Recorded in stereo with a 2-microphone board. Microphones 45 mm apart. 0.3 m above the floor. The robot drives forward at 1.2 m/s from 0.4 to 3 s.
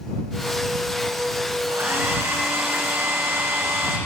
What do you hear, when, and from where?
1.7 s a hair dryer: 80° right, 8.5 m; by 4.0 s 85° right, 8.5 m